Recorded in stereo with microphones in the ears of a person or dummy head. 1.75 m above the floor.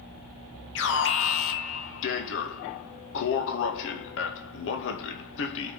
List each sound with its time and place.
0.8 s an alarm: 75° left (ahead or behind), 2 m